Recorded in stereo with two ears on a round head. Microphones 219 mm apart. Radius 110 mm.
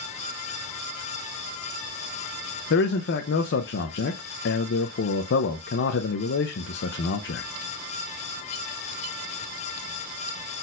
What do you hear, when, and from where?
2.7 s a man speaking: 45° left (ahead or behind), 0.5 m